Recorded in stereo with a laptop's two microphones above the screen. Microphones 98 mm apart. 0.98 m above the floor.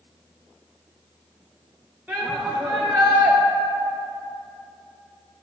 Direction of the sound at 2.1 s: 10° right (ahead or behind).